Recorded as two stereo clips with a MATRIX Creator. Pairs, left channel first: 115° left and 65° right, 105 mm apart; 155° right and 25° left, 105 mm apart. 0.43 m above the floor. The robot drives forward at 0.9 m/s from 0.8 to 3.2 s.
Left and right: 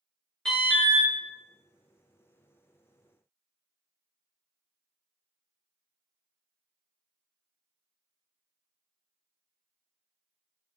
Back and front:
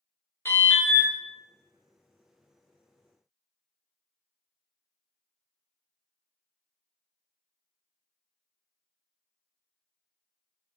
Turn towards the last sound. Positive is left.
turn(degrees=180)